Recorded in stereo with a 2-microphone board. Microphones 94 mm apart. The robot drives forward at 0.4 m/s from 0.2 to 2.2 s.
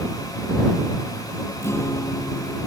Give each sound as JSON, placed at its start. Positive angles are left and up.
{"t": 1.6, "sound": "a guitar", "side_deg": 30}